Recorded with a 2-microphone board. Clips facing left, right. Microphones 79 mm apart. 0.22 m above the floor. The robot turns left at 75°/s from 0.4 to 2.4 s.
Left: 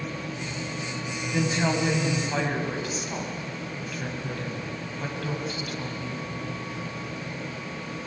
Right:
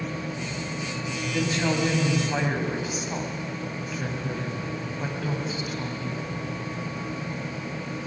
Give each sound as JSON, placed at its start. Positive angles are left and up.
{"t": 1.3, "sound": "a woman speaking", "side_deg": 25, "distance_m": 1.7}